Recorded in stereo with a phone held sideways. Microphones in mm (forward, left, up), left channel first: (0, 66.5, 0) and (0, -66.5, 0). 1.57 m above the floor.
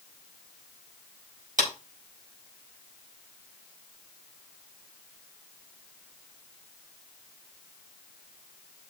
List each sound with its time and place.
1.6 s a clap: 85° right, 4.5 m